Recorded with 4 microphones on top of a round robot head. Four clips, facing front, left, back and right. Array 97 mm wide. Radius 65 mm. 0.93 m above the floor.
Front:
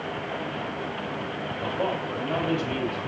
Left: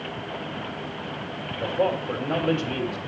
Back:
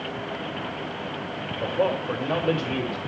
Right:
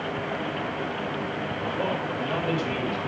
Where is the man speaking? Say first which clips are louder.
Left 6 dB, back 4 dB; 160° left, 4.5 m.